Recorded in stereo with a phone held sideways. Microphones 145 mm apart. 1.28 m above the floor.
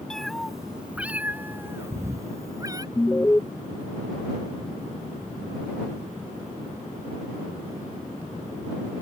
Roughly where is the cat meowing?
Centre.